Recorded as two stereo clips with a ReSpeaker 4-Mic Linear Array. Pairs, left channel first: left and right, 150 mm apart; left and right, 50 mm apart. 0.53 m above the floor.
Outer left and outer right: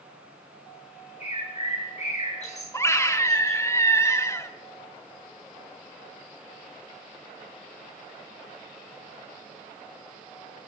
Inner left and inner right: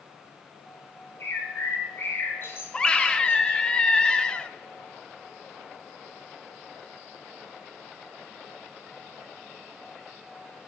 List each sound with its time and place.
1.2 s a bird: 50° left (ahead or behind), 3.5 m
2.7 s a scream: 20° left (ahead or behind), 0.9 m